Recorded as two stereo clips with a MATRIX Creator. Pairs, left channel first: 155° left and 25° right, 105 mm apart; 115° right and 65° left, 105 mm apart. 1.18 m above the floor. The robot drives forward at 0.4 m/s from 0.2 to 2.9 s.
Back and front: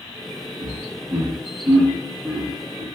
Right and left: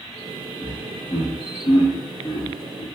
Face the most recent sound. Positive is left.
turn(degrees=-105)